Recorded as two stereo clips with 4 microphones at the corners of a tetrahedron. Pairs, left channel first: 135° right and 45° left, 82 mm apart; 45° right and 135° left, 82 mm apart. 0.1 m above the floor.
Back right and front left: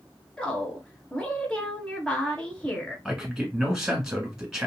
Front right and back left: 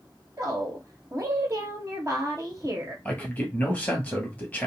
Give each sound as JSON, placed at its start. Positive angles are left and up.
{"t": 0.4, "sound": "a woman speaking", "azimuth_deg": 155, "distance_m": 1.4}
{"t": 3.0, "sound": "a man speaking", "azimuth_deg": -25, "distance_m": 1.5}